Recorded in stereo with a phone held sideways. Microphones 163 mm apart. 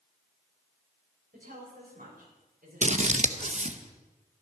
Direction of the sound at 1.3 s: 65° right (ahead or behind).